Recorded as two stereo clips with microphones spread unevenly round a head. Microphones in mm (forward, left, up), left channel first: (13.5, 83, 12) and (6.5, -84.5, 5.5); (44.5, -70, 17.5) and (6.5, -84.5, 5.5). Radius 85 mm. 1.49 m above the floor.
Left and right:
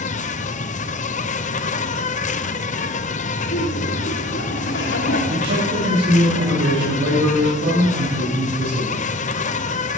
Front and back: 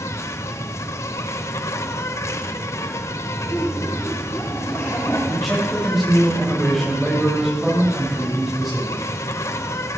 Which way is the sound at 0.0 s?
40° left.